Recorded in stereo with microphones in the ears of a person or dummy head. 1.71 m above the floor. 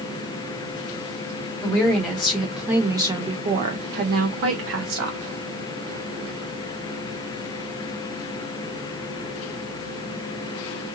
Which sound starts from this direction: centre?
A woman speaking, at 1.6 s.